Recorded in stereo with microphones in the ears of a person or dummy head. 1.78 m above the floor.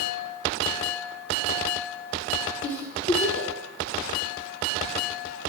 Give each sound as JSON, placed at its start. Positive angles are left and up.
{"t": 2.6, "sound": "a giggle", "side_deg": 55, "distance_m": 3.0}